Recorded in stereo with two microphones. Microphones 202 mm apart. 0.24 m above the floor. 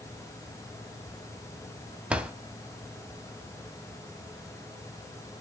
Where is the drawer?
5° right (ahead or behind), 0.7 m.